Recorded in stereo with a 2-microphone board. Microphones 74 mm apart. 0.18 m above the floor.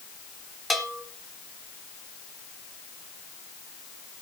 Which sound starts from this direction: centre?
A bell, at 0.7 s.